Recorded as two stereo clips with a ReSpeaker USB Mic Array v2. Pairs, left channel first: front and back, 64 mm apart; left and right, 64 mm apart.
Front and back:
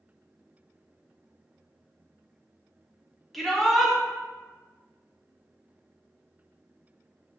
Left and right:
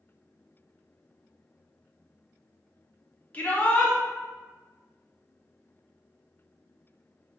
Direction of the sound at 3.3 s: 85° left.